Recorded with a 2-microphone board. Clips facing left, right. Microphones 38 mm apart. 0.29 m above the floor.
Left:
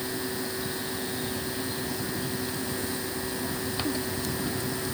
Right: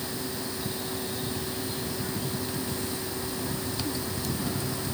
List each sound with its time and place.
Only background noise.